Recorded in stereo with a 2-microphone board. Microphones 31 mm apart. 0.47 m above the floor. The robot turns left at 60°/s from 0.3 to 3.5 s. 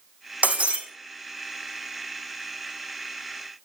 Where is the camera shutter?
No camera shutter in this recording.